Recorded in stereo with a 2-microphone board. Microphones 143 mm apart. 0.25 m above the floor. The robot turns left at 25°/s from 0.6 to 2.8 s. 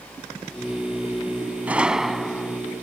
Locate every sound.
1.7 s a gunshot: 10° right (ahead or behind); by 2.6 s 10° left (ahead or behind)